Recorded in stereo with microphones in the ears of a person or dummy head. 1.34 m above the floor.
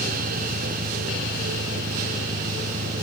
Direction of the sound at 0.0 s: 35° right (ahead or behind).